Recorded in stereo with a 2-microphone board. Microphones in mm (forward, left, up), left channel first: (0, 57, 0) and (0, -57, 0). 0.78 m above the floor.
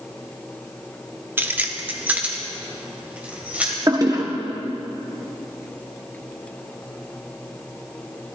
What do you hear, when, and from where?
1.4 s keys jangling: 20° right (ahead or behind), 0.7 m; by 3.8 s 15° right (ahead or behind), 2.5 m
3.9 s a toilet flushing: 35° right (ahead or behind), 1.3 m